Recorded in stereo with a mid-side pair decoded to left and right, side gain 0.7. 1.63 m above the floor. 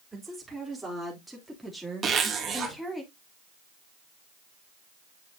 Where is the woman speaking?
5° right, 4 m; by 3.0 s 10° left, 1.9 m.